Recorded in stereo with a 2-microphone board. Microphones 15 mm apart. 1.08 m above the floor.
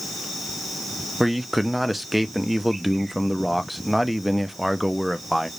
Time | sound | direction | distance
1.2 | a man speaking | 10° right (ahead or behind) | 0.7 m